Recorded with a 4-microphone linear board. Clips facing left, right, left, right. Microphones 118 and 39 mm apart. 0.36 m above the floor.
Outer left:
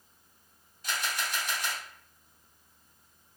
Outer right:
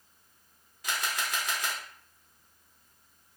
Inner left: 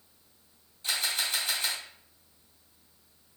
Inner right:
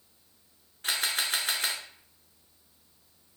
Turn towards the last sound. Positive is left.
turn(degrees=-80)